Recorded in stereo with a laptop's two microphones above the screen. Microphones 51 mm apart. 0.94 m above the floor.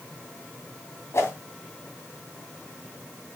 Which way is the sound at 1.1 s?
55° left (ahead or behind).